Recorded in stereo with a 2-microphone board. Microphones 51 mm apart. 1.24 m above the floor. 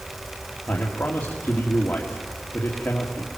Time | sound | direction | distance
0.7 | a man speaking | 40° left (ahead or behind) | 2.5 m